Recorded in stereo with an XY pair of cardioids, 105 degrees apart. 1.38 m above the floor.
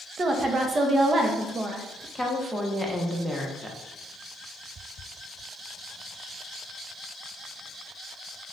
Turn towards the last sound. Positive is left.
turn(degrees=0)